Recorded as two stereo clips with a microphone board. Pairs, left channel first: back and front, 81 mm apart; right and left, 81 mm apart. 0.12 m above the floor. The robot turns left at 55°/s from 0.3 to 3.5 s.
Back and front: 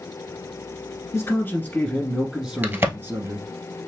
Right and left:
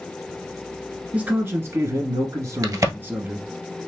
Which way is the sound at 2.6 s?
60° left.